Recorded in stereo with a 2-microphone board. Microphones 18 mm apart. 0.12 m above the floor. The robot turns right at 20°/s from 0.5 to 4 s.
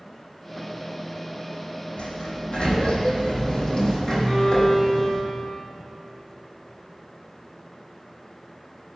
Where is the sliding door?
95° left, 3.5 m; by 5.2 s 135° left, 3.5 m.